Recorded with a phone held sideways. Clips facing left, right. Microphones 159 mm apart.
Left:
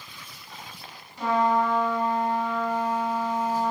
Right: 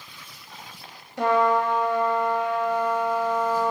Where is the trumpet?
80° right, 2.0 m.